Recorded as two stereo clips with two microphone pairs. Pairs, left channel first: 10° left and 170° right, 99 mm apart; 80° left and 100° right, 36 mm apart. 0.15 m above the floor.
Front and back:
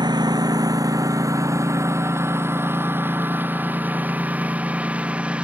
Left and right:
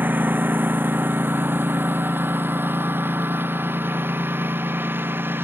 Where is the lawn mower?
125° right; by 5.5 s 90° right.